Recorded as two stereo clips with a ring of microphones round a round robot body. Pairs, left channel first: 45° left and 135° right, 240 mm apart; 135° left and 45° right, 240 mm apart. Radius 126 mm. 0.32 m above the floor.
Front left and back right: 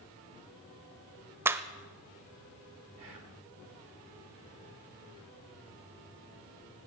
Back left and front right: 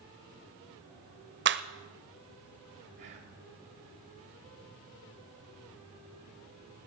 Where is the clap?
55° right, 0.9 m.